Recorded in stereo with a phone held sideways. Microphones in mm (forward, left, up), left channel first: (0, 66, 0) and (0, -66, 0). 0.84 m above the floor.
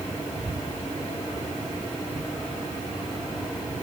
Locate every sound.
Only background noise.